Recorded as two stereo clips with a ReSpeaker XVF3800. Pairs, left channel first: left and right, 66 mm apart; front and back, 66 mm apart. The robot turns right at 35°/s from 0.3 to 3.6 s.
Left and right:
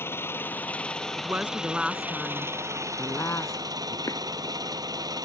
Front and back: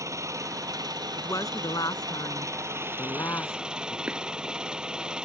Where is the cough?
110° left.